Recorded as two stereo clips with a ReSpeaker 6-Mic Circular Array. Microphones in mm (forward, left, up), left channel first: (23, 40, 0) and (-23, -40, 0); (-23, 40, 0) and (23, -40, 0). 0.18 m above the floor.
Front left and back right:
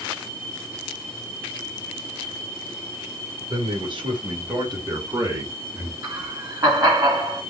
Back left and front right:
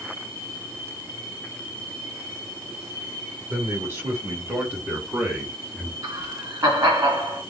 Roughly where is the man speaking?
Behind right.